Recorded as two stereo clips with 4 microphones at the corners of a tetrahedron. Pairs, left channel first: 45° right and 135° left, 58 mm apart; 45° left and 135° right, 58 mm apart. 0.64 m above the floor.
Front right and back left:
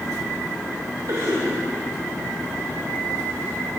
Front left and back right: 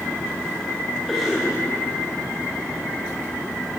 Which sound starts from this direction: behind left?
A cough, at 1.1 s.